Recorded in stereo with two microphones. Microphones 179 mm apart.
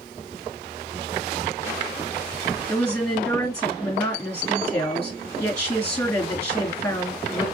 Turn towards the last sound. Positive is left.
turn(degrees=10)  # may be behind; listen again after turning